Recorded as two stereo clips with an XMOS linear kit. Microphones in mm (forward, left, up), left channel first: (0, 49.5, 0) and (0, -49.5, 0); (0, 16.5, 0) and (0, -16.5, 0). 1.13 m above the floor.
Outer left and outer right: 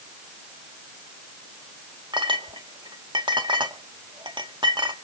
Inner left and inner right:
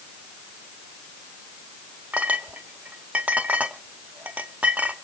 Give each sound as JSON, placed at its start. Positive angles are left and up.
{"t": 2.1, "sound": "a clink", "side_deg": -55, "distance_m": 1.7}